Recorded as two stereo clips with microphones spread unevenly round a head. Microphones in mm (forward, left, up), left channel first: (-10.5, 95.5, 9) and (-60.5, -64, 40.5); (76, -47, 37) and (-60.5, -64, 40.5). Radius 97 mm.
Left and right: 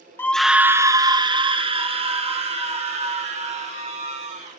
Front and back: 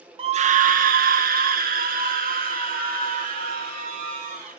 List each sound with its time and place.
0.2 s a scream: 140° left, 0.6 m; by 4.6 s 155° right, 3.5 m